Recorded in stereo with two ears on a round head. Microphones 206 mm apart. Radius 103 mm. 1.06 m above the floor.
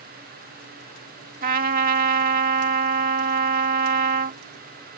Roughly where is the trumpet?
Right.